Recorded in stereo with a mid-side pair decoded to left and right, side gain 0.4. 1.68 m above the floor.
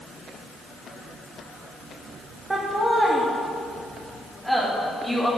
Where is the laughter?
25° right, 2.5 m; by 5.3 s straight ahead, 4 m.